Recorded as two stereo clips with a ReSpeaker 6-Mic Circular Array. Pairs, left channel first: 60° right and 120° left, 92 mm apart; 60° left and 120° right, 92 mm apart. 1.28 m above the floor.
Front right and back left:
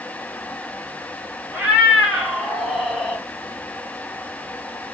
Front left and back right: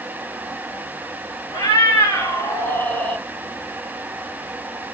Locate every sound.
1.5 s a cat meowing: 45° left, 1.9 m; by 3.2 s 5° left, 1.2 m